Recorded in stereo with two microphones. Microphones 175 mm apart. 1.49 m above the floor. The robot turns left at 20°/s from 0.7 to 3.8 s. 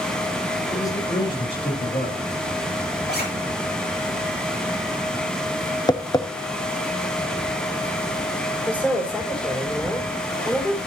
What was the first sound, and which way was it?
A man speaking, 165° left.